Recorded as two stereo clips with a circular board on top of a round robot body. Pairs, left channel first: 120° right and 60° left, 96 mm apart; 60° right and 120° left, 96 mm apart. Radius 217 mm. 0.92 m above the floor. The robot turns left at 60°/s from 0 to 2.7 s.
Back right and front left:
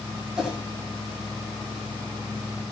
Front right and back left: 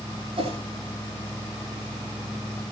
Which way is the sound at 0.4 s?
150° left.